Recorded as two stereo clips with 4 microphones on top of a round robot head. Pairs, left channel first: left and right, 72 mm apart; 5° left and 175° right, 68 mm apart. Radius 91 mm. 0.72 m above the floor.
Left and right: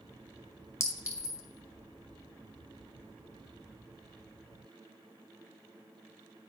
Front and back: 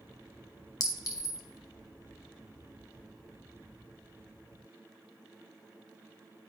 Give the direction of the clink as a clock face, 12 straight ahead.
11 o'clock.